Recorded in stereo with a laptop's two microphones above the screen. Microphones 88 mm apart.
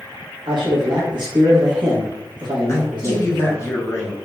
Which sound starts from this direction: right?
A man speaking, at 0.5 s.